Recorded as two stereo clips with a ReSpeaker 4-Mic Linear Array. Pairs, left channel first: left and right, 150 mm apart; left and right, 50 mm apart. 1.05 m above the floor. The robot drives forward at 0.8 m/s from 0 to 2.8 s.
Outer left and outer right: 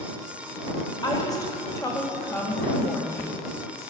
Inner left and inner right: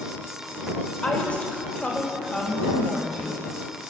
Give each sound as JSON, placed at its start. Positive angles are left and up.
{"t": 1.0, "sound": "a woman speaking", "side_deg": 30, "distance_m": 3.5}